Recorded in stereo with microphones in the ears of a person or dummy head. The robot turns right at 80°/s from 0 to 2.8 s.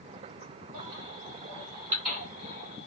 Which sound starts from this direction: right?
A baby crying, at 0.7 s.